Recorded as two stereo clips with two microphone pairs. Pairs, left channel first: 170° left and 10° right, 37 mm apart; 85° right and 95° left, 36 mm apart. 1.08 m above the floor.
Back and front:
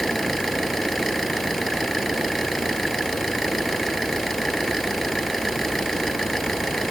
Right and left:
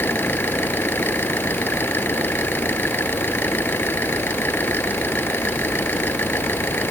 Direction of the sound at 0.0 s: 105° right.